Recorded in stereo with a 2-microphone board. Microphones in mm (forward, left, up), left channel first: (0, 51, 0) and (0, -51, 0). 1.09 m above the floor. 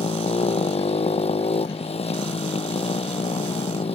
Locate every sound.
0.0 s a motorcycle: 90° left